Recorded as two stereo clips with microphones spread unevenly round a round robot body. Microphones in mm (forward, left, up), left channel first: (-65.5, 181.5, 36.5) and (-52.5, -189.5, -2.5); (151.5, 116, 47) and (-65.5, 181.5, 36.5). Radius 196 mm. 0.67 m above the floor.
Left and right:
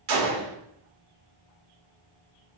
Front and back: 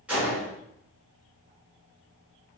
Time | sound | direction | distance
0.1 | a gunshot | 110° right | 1.3 m